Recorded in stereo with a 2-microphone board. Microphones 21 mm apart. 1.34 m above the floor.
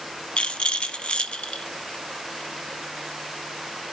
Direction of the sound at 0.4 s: 55° left (ahead or behind).